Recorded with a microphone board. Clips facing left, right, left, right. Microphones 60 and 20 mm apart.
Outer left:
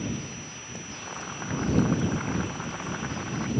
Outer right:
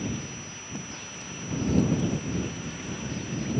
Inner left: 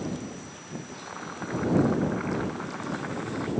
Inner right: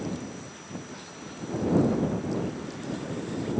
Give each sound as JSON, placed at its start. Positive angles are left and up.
{"t": 0.9, "sound": "boiling", "side_deg": 70}